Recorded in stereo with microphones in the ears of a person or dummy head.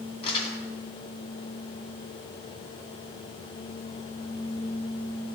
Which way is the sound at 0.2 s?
35° left (ahead or behind).